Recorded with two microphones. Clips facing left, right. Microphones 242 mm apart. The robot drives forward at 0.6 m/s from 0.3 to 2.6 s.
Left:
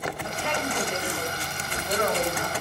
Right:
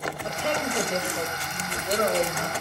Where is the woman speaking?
45° right (ahead or behind), 3.5 m; by 2.6 s 35° right (ahead or behind), 4.5 m.